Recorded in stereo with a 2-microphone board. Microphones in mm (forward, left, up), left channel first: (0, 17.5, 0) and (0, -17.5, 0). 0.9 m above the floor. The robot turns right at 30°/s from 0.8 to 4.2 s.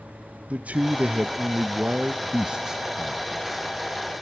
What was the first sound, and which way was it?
A man speaking, 40° right (ahead or behind).